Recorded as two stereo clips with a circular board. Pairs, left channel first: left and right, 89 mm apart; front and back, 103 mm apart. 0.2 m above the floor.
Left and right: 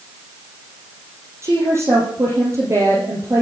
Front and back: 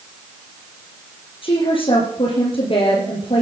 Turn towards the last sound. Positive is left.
turn(degrees=-30)